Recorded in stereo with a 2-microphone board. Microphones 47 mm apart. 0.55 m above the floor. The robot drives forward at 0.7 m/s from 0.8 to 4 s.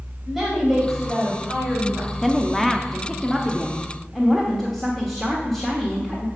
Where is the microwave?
I don't hear a microwave.